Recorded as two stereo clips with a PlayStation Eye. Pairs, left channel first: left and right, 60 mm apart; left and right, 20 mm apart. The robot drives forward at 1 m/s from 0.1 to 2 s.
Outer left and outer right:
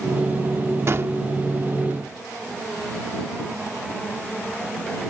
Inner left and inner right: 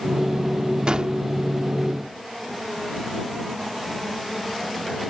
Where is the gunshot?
50° right (ahead or behind); by 1.1 s 45° right (ahead or behind).